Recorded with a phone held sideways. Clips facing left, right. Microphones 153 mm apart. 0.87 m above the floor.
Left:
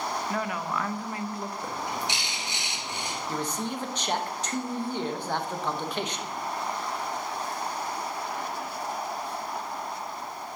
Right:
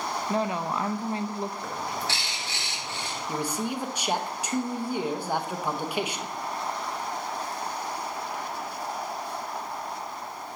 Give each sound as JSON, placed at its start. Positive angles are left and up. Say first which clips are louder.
{"t": 0.3, "sound": "a woman speaking", "louder": "right 7 dB", "side_deg": -25, "distance_m": 0.5}
{"t": 1.6, "sound": "a bird", "louder": "even", "side_deg": 15, "distance_m": 1.4}
{"t": 3.3, "sound": "a man speaking", "louder": "right 2 dB", "side_deg": -10, "distance_m": 0.8}